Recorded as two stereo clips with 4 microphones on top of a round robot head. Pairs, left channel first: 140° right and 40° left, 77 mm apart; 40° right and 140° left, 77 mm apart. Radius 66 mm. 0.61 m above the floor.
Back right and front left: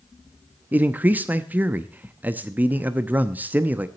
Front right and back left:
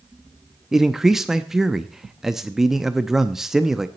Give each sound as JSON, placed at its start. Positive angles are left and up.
{"t": 0.7, "sound": "a man speaking", "azimuth_deg": 65, "distance_m": 0.7}